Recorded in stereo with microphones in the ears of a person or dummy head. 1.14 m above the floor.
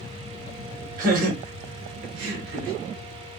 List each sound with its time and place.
1.0 s laughter: 50° right (ahead or behind), 1.9 m; by 2.8 s 70° right (ahead or behind), 1.4 m